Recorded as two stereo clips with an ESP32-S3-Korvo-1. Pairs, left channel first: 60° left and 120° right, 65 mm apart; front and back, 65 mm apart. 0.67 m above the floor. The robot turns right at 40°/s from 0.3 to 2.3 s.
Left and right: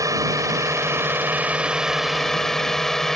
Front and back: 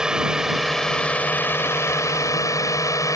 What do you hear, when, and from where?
0.0 s a drone: 105° right; by 3.2 s 25° right